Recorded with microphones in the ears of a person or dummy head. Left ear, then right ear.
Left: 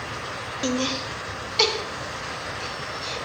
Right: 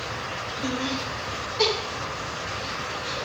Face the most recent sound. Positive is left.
turn(degrees=65)  # may be behind; listen again after turning